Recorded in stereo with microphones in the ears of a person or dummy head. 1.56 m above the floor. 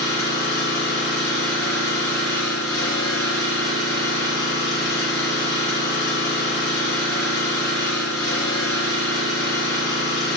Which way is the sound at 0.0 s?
15° left (ahead or behind).